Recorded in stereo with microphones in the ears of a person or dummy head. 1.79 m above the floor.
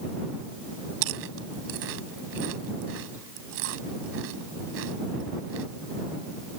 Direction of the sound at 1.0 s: 70° right (ahead or behind).